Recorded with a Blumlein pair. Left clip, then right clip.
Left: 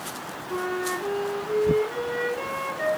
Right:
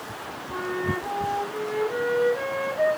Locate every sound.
0.5 s a flute: 5° right, 3 m